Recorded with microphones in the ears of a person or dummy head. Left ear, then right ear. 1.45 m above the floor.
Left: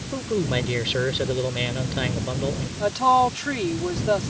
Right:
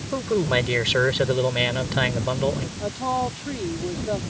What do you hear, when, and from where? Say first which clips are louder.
0.1 s a man speaking: right 3 dB; 30° right (ahead or behind)
2.8 s a woman speaking: left 8 dB; 55° left (ahead or behind)